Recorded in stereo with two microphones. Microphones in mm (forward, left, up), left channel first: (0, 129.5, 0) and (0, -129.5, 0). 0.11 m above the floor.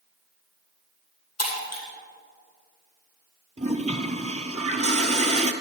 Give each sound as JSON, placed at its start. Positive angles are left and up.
{"t": 1.4, "sound": "breaking glass", "side_deg": 70, "distance_m": 2.5}
{"t": 3.6, "sound": "a toilet flushing", "side_deg": -25, "distance_m": 0.7}